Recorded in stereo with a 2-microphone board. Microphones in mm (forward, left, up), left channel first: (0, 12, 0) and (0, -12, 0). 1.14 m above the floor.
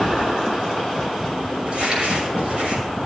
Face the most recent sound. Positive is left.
turn(degrees=-50)  # may be behind; listen again after turning